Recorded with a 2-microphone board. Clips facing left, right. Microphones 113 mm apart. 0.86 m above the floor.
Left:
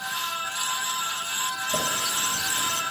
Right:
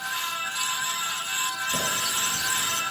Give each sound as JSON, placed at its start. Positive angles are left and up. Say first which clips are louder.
{"t": 1.7, "sound": "a running tap", "louder": "left 2 dB", "side_deg": 50, "distance_m": 3.5}